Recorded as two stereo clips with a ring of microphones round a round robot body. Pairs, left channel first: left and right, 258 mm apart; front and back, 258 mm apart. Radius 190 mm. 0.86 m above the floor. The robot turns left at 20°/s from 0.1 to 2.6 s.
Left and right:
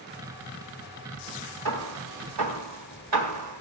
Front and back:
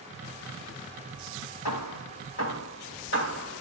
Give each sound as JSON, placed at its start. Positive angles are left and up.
{"t": 1.6, "sound": "hammering", "azimuth_deg": -40, "distance_m": 3.0}